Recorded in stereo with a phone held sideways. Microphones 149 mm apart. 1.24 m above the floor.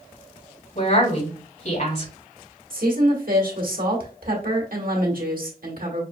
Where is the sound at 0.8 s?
55° left (ahead or behind), 3.5 m.